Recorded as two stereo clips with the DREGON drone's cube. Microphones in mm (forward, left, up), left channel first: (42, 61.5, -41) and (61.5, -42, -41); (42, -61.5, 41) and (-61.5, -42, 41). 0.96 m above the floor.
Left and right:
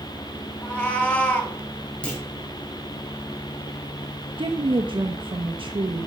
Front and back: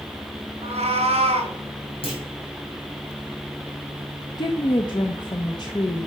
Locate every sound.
0.6 s a cat meowing: 170° left, 2 m
2.0 s a clunk: 20° left, 3 m
4.4 s a woman speaking: 50° right, 0.9 m